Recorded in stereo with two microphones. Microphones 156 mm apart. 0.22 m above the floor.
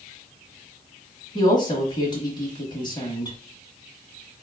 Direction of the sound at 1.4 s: 30° left (ahead or behind).